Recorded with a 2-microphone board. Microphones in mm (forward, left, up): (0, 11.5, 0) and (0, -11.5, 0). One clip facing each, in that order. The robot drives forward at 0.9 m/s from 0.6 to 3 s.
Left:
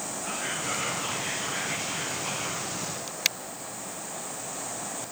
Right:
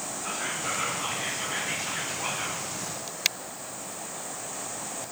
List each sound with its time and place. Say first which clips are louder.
0.2 s whispering: right 1 dB; 25° right (ahead or behind), 3.5 m; by 2.7 s 40° right (ahead or behind), 2 m